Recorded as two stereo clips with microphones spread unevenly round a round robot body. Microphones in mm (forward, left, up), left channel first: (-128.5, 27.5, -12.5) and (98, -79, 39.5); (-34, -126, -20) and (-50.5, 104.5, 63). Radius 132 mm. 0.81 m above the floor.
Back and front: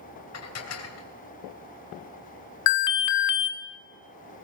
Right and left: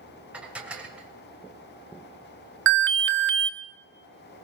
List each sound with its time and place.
0.3 s dishes clattering: straight behind, 2.5 m
2.7 s an alarm: 135° left, 1.4 m